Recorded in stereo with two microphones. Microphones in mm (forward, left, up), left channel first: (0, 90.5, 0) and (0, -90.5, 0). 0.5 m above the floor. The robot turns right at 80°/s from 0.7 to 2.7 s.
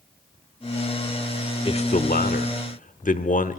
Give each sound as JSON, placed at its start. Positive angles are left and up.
{"t": 1.6, "sound": "a man speaking", "azimuth_deg": 35, "distance_m": 1.1}